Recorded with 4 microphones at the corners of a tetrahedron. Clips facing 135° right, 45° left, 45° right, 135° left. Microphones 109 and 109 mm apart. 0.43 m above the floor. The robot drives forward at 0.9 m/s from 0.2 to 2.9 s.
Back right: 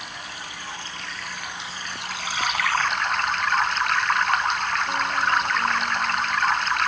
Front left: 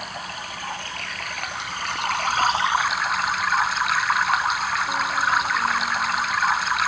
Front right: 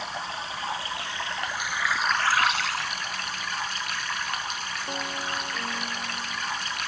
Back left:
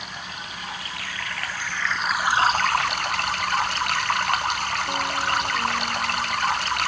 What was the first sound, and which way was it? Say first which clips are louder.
Running water: front left 4 dB, front right 3 dB; 10° left.